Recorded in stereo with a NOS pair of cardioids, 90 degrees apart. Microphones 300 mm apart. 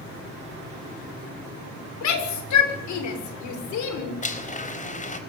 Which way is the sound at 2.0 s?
65° left.